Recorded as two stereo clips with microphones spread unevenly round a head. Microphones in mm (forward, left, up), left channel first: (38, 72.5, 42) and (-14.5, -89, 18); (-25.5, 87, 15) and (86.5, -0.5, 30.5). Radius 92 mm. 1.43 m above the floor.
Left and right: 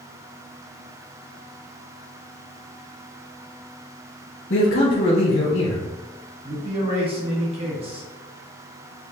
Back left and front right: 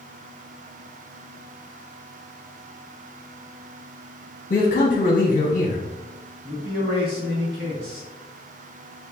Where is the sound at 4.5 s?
110° left, 0.9 m.